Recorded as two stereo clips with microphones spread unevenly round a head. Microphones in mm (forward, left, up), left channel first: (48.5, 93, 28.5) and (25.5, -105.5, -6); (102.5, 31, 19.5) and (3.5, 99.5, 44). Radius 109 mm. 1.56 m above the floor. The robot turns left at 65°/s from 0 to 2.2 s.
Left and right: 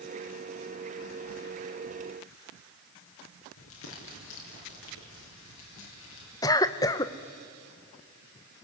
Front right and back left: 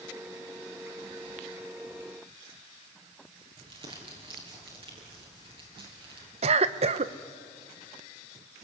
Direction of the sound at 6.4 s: 150° left.